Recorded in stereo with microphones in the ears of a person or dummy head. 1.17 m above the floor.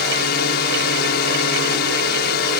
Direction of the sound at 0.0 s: 55° left (ahead or behind).